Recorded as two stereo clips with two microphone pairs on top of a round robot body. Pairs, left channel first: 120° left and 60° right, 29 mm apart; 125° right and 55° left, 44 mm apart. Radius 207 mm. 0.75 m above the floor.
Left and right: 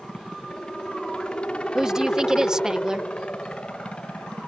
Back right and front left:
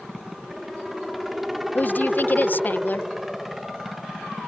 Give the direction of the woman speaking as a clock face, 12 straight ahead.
4 o'clock.